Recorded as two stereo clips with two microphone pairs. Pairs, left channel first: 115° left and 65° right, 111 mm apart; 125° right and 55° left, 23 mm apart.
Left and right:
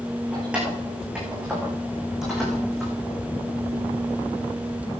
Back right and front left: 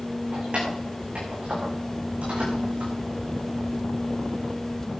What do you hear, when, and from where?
0.3 s keys jangling: 15° left, 8 m; by 2.9 s 25° left, 8.5 m